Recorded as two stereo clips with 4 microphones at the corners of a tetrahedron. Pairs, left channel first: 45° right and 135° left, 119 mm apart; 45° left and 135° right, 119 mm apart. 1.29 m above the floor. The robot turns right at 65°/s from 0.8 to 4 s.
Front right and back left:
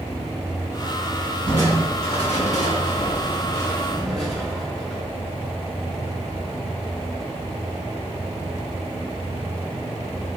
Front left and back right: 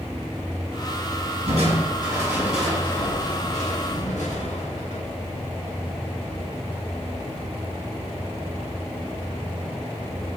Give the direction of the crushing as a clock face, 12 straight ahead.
4 o'clock.